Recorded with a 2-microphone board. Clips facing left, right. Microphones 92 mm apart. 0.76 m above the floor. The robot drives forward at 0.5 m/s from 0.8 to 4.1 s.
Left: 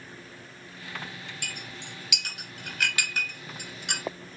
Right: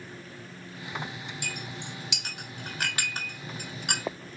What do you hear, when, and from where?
1.4 s a clink: 25° right (ahead or behind), 2 m; by 4.0 s 50° right (ahead or behind), 1.1 m